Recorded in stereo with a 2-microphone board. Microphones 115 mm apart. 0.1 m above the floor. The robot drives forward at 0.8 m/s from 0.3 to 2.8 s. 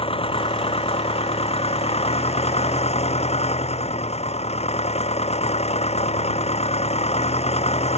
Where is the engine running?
55° left (ahead or behind); by 8.0 s 70° left (ahead or behind).